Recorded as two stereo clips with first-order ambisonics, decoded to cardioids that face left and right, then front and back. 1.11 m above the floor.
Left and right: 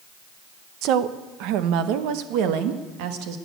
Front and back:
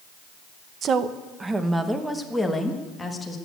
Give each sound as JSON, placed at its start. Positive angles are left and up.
{"t": 0.8, "sound": "a woman speaking", "azimuth_deg": -125, "distance_m": 0.8}